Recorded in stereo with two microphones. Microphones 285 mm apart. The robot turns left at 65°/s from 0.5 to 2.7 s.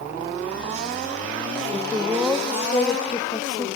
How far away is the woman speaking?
About 1.0 m.